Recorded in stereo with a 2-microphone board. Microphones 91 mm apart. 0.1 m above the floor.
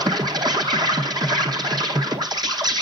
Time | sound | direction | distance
0.0 | an insect | 50° right (ahead or behind) | 1.0 m